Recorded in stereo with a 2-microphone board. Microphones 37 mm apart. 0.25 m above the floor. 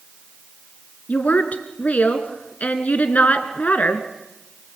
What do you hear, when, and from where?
1.1 s a woman speaking: 45° left (ahead or behind), 3 m